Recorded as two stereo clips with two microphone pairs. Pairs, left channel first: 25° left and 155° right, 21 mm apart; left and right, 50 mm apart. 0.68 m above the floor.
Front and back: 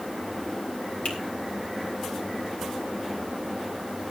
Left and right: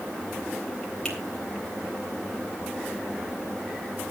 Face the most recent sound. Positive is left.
turn(degrees=15)